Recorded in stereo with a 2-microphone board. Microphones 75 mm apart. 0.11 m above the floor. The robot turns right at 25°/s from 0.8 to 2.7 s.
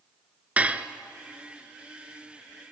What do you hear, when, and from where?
0.6 s dishes clattering: 20° right (ahead or behind), 0.8 m